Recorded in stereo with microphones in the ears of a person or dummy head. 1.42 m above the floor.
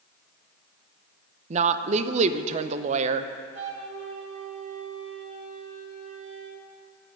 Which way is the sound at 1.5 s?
40° right (ahead or behind).